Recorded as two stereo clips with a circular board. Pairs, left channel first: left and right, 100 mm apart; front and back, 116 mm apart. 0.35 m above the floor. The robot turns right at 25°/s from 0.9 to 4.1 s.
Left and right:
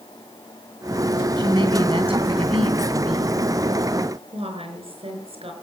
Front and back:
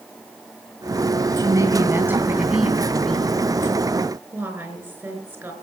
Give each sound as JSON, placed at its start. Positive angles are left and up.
{"t": 1.4, "sound": "a woman speaking", "azimuth_deg": -125, "distance_m": 2.5}
{"t": 4.3, "sound": "a woman speaking", "azimuth_deg": -105, "distance_m": 5.0}